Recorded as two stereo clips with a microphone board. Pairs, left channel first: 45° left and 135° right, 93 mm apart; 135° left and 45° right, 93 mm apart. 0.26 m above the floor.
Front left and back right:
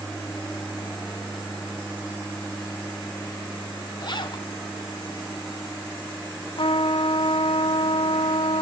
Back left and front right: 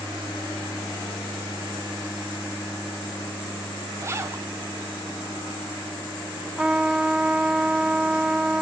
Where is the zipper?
15° left, 0.9 m.